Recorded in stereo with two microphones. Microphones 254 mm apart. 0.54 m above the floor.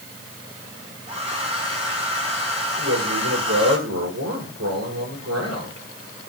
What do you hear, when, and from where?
1.1 s a hair dryer: 25° right (ahead or behind), 5.5 m
2.8 s a man speaking: 85° right, 7 m